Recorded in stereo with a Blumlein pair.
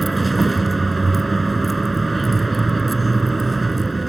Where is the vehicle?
10° right.